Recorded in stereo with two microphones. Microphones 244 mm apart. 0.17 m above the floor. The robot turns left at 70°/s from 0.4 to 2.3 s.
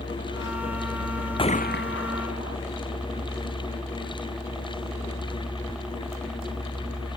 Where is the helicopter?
130° left; by 7.2 s 5° right.